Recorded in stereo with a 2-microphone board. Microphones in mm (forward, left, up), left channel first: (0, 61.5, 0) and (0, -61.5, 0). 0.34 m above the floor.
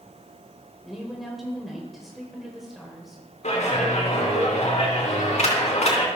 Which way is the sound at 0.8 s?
Centre (ahead or behind).